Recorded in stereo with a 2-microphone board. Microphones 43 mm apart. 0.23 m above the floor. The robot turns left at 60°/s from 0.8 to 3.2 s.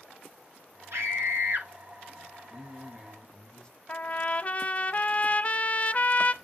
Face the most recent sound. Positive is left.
turn(degrees=35)  # may be behind; listen again after turning